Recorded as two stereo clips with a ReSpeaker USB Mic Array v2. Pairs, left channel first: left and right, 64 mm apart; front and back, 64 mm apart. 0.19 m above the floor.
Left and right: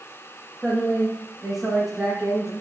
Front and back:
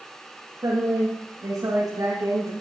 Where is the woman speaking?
Straight behind, 8 m; by 2.5 s 175° right, 9 m.